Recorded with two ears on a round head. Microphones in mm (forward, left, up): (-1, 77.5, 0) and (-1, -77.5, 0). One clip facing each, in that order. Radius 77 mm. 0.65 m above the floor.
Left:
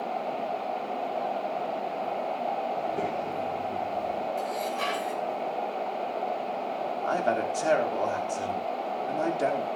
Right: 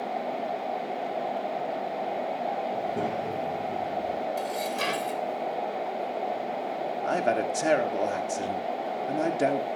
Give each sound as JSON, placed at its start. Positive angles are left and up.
{"t": 2.7, "sound": "a child speaking", "side_deg": -70, "distance_m": 7.0}
{"t": 4.4, "sound": "dishes clattering", "side_deg": -50, "distance_m": 2.0}
{"t": 7.0, "sound": "a man speaking", "side_deg": -25, "distance_m": 1.5}